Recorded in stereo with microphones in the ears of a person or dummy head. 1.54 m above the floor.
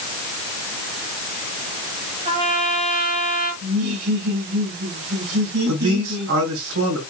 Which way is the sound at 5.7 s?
85° right.